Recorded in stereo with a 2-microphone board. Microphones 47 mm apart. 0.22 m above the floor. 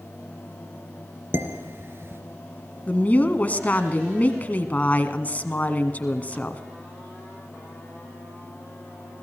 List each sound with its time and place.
1.3 s dishes clattering: 50° right (ahead or behind), 2.5 m
2.9 s a woman speaking: 30° left (ahead or behind), 1.6 m